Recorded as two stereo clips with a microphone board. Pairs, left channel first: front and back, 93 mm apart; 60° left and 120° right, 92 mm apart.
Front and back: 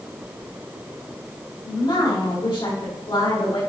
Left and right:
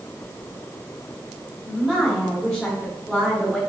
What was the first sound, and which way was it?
A woman speaking, 25° right.